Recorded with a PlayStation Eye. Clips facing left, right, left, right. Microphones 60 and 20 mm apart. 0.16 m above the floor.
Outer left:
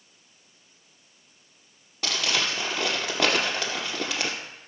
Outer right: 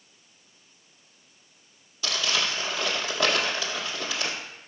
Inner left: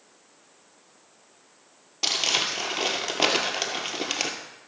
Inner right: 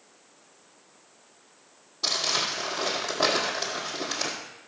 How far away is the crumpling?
About 2.5 m.